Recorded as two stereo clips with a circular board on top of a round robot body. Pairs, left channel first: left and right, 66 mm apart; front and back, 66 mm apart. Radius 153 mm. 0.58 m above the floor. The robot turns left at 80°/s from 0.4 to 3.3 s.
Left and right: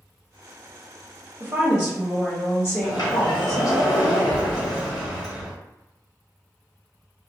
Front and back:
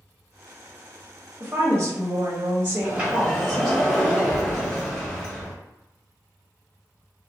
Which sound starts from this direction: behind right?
A woman speaking, at 1.4 s.